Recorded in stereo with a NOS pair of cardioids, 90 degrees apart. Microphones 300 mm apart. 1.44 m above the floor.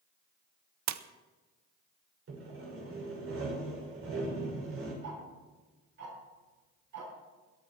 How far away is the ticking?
About 8.5 m.